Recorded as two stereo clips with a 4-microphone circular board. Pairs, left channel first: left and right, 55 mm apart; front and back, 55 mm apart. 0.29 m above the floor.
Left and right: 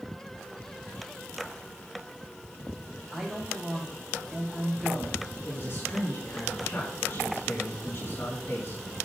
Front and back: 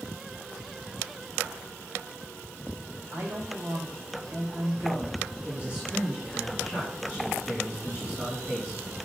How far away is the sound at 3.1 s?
About 2 m.